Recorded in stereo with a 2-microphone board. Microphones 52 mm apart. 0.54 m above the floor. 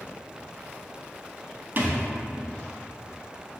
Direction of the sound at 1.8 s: 40° right (ahead or behind).